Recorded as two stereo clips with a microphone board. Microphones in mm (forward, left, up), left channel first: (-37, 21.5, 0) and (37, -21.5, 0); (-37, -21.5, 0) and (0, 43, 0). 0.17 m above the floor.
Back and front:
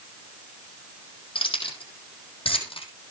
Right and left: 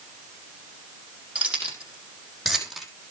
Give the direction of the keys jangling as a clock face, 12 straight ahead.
8 o'clock.